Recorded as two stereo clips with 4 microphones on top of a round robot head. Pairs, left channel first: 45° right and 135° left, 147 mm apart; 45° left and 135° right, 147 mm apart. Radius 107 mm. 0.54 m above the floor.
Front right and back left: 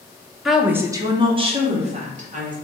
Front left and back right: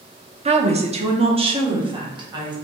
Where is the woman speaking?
135° right, 0.9 m; by 2.5 s 165° left, 1.8 m.